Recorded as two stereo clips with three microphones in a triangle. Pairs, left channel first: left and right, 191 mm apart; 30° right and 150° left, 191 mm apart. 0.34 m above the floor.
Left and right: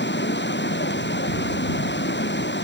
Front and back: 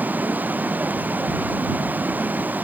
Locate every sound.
0.0 s running water: 70° left